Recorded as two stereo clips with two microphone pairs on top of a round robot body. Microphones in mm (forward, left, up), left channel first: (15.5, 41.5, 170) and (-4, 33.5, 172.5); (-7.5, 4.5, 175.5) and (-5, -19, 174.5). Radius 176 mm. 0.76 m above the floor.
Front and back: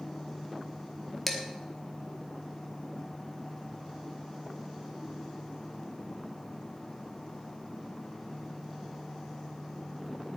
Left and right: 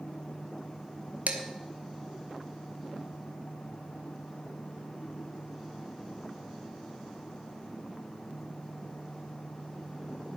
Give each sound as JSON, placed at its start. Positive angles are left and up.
{"t": 1.3, "sound": "dishes clattering", "azimuth_deg": -65, "distance_m": 1.4}